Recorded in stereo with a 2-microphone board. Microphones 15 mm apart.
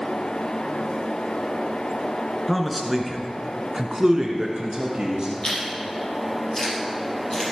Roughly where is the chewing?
Left.